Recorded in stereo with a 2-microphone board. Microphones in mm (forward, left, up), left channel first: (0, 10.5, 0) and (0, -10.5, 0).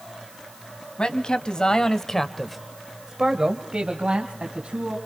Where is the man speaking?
50° left (ahead or behind), 2.5 m; by 5.0 s 60° right (ahead or behind), 3.5 m.